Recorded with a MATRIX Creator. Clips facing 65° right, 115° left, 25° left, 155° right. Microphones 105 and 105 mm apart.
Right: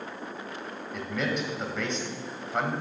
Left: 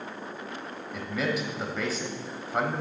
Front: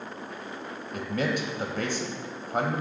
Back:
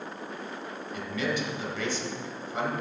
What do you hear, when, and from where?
0.9 s a man speaking: 25° left, 1.2 m